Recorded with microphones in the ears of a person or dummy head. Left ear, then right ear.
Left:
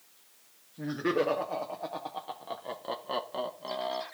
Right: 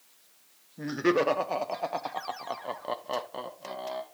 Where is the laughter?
80° right, 1.2 m; by 4.0 s 15° left (ahead or behind), 1.1 m.